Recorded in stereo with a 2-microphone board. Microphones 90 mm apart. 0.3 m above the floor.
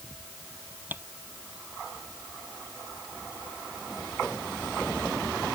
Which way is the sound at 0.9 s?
20° right (ahead or behind).